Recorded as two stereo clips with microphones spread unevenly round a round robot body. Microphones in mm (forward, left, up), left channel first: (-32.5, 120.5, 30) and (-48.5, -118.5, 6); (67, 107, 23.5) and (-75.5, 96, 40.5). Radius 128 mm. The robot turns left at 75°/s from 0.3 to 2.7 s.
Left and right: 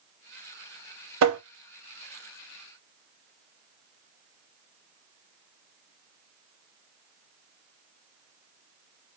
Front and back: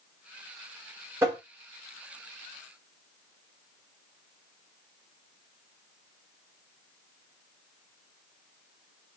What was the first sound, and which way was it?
Tapping, 95° right.